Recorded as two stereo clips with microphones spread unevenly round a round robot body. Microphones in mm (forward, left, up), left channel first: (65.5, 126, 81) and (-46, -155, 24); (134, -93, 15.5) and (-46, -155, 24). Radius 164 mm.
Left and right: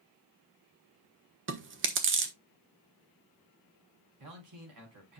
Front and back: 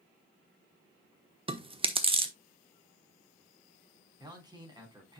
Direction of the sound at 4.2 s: 95° right.